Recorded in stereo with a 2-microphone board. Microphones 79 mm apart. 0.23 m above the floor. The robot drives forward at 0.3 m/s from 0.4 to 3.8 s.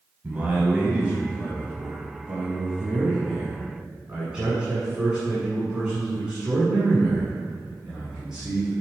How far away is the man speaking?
About 1.0 m.